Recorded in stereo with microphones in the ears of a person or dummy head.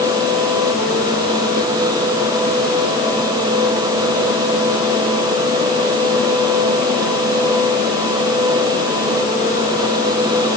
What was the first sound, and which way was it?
Only background noise.